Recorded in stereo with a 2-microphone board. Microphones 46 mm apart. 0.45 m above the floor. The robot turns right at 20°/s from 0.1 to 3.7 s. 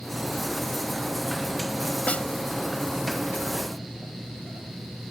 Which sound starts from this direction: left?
A snare drum, at 2.1 s.